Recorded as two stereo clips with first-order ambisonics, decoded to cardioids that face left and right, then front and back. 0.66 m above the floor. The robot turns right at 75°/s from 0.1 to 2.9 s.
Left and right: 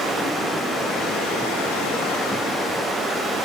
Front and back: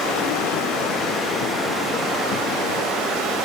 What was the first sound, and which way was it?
Running water, 20° right.